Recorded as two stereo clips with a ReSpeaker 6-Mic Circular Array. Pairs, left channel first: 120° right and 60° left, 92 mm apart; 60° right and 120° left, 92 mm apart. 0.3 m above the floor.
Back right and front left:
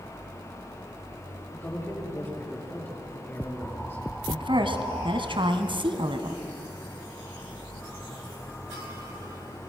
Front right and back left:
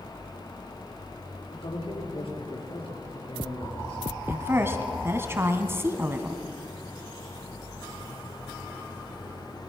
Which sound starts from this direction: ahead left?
A woman speaking, at 4.3 s.